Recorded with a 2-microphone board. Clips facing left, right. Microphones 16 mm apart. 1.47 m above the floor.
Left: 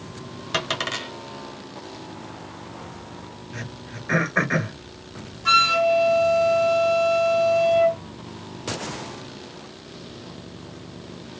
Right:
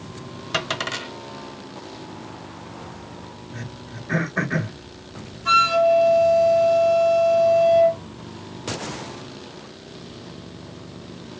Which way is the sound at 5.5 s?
30° left (ahead or behind).